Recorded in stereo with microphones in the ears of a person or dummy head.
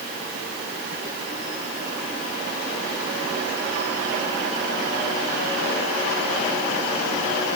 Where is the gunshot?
No gunshot in this recording.